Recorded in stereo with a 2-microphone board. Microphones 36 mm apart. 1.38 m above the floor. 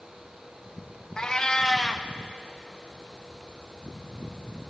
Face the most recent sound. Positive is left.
turn(degrees=20)  # may be behind; listen again after turning